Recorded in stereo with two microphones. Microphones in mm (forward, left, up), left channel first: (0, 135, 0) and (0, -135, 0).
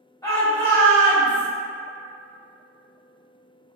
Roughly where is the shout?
Centre.